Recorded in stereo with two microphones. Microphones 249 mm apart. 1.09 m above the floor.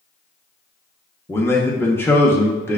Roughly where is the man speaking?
Centre.